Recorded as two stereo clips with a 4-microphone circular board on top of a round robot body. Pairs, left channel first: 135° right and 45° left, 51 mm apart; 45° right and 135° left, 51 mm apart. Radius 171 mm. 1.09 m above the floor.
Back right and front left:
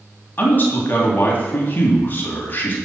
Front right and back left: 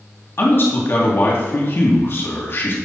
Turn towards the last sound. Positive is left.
turn(degrees=-80)